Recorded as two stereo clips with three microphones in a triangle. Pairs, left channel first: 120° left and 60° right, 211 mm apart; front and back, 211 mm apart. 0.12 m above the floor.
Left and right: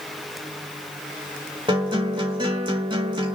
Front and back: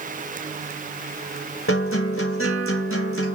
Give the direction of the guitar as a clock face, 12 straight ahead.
12 o'clock.